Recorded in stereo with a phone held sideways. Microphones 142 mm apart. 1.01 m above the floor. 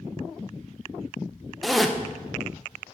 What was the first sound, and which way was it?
A zipper, centre (ahead or behind).